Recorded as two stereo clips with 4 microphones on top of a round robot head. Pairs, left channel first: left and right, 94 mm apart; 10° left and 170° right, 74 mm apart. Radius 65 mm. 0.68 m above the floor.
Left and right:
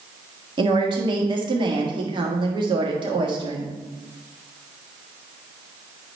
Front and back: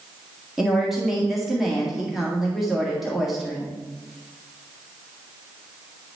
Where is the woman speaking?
85° right, 1.6 m.